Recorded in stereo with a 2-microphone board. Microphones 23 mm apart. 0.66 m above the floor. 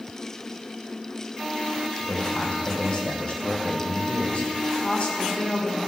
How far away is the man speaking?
About 2 m.